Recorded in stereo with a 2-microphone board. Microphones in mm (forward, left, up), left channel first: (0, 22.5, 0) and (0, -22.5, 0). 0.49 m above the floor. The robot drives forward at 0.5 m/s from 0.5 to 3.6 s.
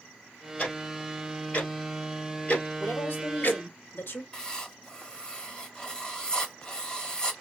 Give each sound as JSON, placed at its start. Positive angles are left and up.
{"t": 0.6, "sound": "ticking", "side_deg": 25, "distance_m": 3.0}
{"t": 2.8, "sound": "a woman speaking", "side_deg": 50, "distance_m": 1.7}
{"t": 4.3, "sound": "writing", "side_deg": 15, "distance_m": 1.4}